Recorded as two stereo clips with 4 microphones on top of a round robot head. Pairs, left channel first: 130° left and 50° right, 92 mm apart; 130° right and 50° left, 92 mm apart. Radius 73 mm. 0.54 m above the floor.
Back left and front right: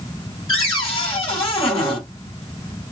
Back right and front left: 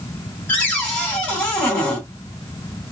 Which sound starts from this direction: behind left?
A cupboard door, at 0.5 s.